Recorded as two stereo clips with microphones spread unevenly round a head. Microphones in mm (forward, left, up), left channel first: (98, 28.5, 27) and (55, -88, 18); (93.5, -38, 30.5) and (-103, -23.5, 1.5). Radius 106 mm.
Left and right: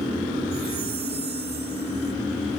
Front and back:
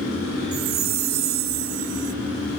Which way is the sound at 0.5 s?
175° right.